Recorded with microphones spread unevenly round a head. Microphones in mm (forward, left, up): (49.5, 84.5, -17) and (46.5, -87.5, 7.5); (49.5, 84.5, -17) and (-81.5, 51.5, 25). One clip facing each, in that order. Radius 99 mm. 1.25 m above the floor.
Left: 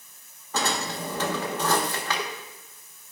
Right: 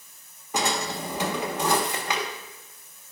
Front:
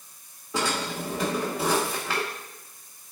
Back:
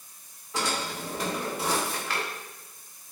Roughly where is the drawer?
Ahead.